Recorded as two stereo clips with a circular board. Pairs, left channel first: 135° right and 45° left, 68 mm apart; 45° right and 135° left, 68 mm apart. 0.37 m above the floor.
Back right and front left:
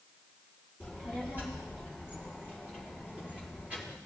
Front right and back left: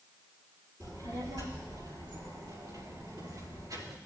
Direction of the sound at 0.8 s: 110° left.